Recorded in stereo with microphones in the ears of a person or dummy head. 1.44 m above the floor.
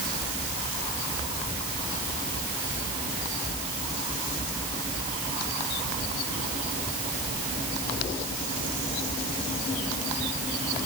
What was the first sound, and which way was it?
Only background noise.